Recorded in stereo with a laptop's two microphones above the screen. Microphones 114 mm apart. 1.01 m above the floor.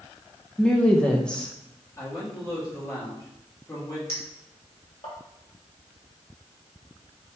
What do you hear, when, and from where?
0.6 s a woman speaking: 5° left (ahead or behind), 0.6 m
2.0 s a man speaking: 25° left (ahead or behind), 1.5 m
4.1 s a clink: 55° left (ahead or behind), 1.5 m